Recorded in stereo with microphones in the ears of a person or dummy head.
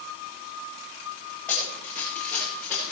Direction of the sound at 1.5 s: 10° left (ahead or behind).